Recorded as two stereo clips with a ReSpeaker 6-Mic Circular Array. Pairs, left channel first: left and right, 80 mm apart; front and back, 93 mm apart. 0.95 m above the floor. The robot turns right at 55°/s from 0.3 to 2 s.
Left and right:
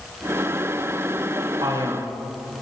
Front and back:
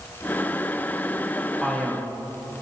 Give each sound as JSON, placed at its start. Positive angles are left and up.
{"t": 1.6, "sound": "a man speaking", "azimuth_deg": -90, "distance_m": 1.7}